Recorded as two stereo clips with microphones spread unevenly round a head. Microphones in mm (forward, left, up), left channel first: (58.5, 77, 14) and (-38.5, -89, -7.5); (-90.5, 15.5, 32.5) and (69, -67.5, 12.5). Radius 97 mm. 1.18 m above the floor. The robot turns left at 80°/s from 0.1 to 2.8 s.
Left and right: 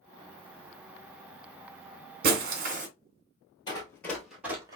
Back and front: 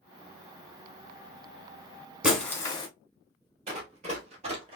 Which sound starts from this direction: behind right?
Breaking glass, at 2.2 s.